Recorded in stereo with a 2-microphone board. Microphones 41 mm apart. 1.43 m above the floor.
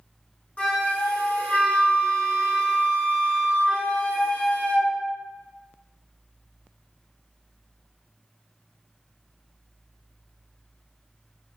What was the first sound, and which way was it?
A flute, 35° left (ahead or behind).